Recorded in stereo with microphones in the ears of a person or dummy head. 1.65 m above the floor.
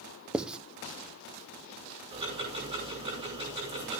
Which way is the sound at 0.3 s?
5° right (ahead or behind).